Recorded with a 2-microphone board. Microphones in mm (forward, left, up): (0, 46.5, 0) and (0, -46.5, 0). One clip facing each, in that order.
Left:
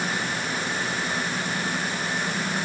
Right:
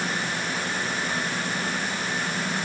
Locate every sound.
Only background noise.